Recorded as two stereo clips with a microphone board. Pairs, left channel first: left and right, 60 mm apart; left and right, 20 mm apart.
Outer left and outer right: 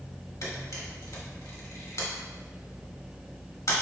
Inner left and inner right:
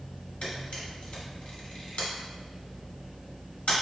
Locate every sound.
0.4 s a camera shutter: 80° left, 2 m